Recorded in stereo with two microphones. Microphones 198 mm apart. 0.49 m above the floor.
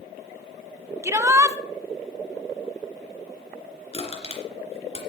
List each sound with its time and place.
1.0 s a shout: 15° right (ahead or behind), 0.7 m
3.9 s crushing: 35° left (ahead or behind), 3 m